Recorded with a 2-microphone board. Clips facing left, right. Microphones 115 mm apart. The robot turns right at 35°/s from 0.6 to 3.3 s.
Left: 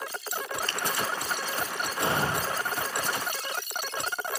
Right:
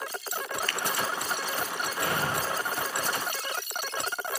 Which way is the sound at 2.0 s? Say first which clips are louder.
Left 3 dB; 25° left (ahead or behind).